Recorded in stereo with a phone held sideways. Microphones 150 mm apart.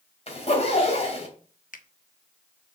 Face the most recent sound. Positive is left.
turn(degrees=75)  # may be behind; listen again after turning